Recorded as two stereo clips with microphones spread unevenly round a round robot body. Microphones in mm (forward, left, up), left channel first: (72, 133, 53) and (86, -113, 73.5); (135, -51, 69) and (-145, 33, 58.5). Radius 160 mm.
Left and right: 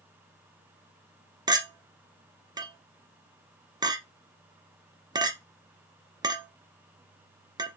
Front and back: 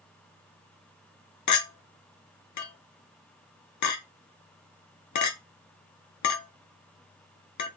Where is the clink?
10° right, 0.8 m.